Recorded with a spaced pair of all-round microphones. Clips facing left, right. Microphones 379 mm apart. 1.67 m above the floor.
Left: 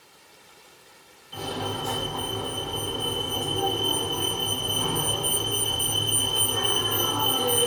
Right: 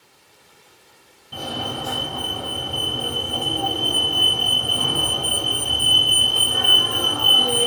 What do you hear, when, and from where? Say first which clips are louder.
1.3 s a fire alarm: right 1 dB; 75° right (ahead or behind), 2.5 m